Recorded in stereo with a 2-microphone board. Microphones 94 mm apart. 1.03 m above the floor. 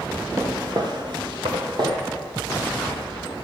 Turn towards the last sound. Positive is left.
turn(degrees=-50)  # may be behind; listen again after turning